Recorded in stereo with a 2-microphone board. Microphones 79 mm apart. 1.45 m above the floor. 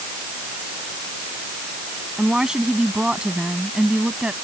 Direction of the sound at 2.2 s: 10° right (ahead or behind).